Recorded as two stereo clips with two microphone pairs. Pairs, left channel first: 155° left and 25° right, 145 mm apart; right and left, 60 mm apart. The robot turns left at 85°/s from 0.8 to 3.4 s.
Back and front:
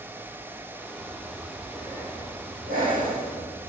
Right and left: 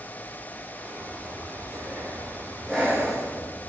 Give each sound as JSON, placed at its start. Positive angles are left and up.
{"t": 1.0, "sound": "breathing", "azimuth_deg": 135, "distance_m": 4.0}